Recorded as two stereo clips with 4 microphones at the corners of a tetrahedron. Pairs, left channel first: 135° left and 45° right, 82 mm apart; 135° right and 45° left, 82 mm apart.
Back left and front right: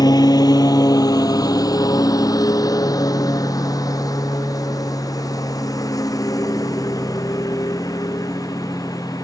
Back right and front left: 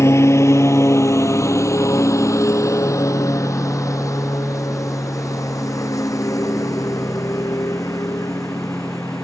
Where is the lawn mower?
170° left; by 9.2 s straight behind.